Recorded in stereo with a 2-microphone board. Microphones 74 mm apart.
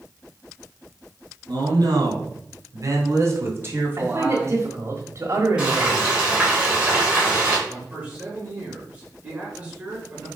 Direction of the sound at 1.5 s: 65° right (ahead or behind).